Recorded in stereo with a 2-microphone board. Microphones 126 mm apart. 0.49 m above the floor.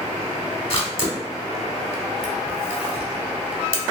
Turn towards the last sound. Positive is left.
turn(degrees=45)  # may be behind; listen again after turning